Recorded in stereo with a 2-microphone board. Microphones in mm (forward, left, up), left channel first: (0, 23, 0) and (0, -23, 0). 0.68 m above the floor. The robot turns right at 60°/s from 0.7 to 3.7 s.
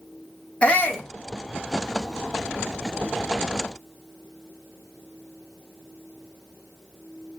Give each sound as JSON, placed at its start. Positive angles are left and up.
{"t": 0.6, "sound": "a shout", "side_deg": 30, "distance_m": 1.4}